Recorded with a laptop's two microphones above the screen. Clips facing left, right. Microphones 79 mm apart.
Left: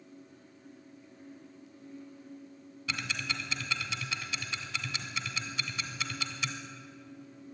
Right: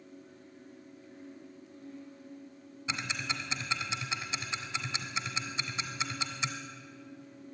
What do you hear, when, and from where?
0.0 s a fan: 80° right, 7.5 m
2.9 s ticking: 25° right (ahead or behind), 1.3 m